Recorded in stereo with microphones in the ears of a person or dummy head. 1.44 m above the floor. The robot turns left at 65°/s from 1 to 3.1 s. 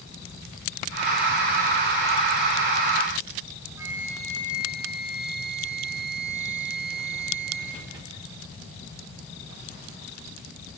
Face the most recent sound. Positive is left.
turn(degrees=-15)  # may be behind; listen again after turning